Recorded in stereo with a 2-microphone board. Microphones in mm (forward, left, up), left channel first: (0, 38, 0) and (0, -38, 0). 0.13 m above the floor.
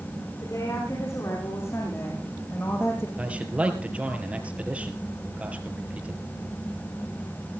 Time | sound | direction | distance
0.4 | a woman speaking | 40° left (ahead or behind) | 10 m
3.2 | a man speaking | 15° right (ahead or behind) | 3 m